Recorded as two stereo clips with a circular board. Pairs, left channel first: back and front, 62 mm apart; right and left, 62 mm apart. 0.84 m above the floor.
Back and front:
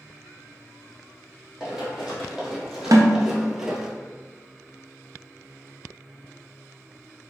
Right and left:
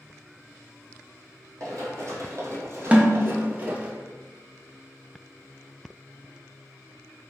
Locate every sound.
1.6 s running footsteps: 80° left, 1.7 m; by 3.9 s 75° left, 0.8 m
2.9 s a snare drum: 20° left, 0.6 m